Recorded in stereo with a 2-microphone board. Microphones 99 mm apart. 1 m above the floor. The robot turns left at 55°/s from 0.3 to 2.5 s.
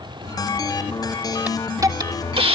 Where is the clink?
No clink in this recording.